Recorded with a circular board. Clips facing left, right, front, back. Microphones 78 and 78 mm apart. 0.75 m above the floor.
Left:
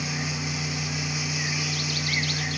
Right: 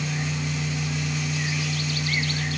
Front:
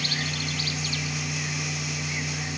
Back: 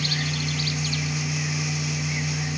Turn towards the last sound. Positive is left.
No sound to turn to.